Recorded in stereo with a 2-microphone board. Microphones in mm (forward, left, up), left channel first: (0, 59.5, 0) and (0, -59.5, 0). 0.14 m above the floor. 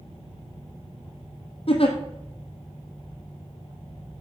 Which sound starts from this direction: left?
A giggle, at 1.7 s.